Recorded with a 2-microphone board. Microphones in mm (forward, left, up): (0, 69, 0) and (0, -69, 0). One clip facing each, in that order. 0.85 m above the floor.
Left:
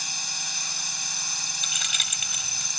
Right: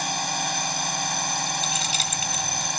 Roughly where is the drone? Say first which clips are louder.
Right 14 dB; right.